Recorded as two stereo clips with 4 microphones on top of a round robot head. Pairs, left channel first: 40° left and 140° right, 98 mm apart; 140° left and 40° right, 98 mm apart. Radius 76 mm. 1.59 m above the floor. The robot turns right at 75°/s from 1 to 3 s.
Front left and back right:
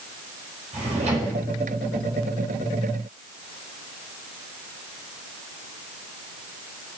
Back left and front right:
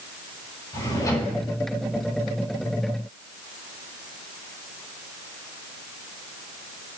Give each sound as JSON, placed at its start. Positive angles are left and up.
{"t": 0.7, "sound": "a drawer", "azimuth_deg": -165, "distance_m": 4.5}